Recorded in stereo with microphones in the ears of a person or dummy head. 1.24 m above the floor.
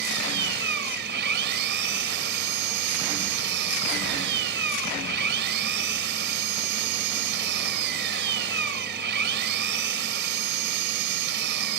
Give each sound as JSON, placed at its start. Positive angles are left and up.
{"t": 0.0, "sound": "an engine running", "side_deg": -55}